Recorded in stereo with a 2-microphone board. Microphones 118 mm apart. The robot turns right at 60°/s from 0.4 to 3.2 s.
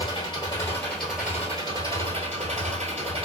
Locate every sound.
0.0 s an engine running: 135° left, 1.3 m; by 3.3 s 55° right, 1.3 m